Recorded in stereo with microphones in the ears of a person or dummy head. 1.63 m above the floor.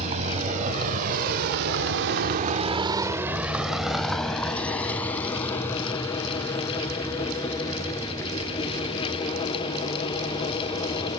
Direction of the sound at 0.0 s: 40° right (ahead or behind).